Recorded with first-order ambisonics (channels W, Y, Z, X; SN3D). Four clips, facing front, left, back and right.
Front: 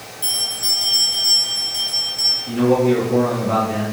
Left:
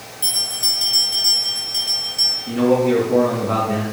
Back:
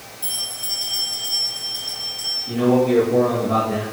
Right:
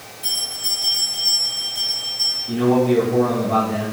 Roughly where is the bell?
Left.